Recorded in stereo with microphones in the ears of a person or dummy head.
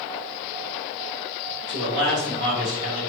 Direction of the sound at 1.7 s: 60° right (ahead or behind).